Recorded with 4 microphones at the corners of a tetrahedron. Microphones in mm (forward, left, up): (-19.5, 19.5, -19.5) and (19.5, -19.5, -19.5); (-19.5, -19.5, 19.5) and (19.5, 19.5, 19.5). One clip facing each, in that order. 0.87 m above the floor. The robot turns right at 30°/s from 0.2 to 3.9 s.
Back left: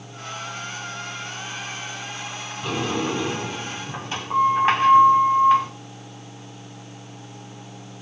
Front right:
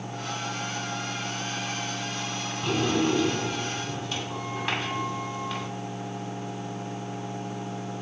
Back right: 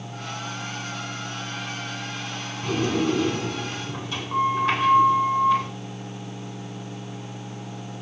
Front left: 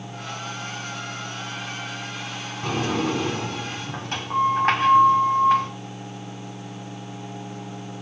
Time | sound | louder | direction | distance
2.6 | a sliding door | even, back right 1 dB | 40° left | 6.5 m